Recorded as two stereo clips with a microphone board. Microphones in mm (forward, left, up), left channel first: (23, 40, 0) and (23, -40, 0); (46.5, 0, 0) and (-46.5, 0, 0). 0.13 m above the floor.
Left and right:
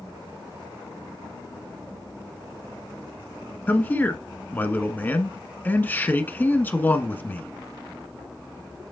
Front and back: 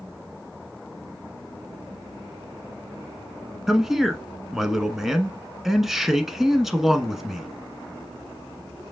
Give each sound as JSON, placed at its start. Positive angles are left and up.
{"t": 3.7, "sound": "a man speaking", "azimuth_deg": 100, "distance_m": 1.2}